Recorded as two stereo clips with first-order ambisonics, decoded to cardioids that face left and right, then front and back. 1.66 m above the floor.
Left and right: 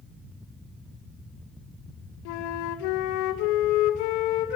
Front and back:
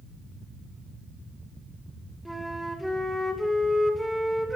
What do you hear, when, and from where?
2.2 s a flute: 90° left, 2.5 m